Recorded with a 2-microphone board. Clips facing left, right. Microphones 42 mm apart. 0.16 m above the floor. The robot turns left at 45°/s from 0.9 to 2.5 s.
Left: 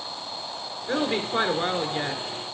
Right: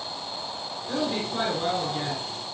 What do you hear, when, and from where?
0.9 s a woman speaking: 95° left, 2 m; by 2.5 s 25° left, 2 m